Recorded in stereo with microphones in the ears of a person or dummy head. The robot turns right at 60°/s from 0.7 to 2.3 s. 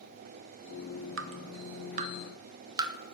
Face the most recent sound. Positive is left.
turn(degrees=-25)  # may be behind; listen again after turning